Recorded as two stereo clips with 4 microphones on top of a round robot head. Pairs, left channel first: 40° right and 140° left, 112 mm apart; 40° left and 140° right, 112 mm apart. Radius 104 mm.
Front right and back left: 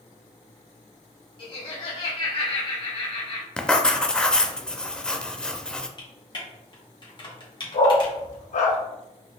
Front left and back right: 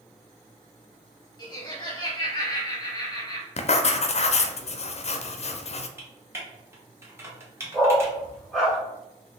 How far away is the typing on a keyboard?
About 1.6 m.